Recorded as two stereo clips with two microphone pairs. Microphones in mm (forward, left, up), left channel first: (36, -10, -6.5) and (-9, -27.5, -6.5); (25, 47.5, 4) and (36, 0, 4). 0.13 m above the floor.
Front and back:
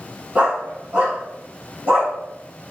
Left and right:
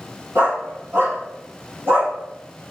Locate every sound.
0.3 s a dog barking: 105° right, 2.0 m; by 2.1 s 125° right, 3 m